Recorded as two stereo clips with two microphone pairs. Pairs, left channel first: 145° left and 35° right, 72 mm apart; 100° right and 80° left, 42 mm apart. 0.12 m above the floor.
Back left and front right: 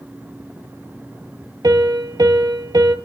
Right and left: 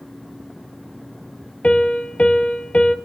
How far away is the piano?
About 0.7 m.